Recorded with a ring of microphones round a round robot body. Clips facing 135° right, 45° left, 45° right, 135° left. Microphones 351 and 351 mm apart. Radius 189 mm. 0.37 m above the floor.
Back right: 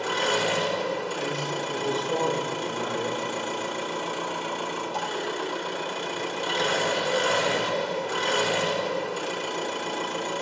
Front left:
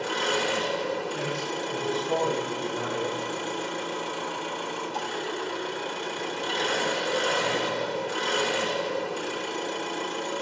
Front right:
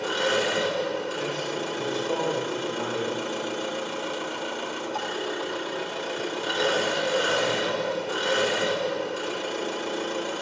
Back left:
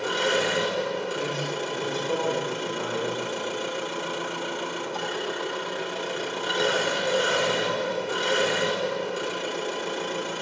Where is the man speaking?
50° left, 3.5 m.